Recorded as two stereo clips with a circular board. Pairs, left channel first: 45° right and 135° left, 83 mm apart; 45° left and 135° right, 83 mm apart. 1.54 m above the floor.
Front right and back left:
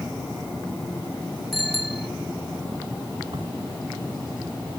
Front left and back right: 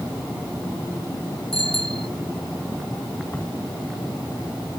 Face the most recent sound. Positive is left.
turn(degrees=120)